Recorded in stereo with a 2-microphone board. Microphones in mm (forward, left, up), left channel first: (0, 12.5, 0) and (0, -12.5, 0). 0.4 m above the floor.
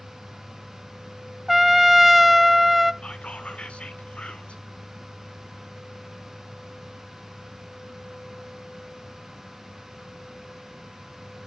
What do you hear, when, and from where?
1.5 s a trumpet: 5° right (ahead or behind), 0.5 m
3.0 s whispering: 55° left (ahead or behind), 2 m